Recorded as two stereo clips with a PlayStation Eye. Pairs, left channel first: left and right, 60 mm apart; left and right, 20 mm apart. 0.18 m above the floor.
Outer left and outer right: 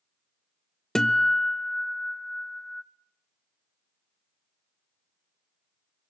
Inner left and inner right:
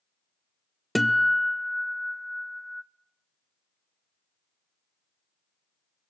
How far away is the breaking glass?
No breaking glass in this recording.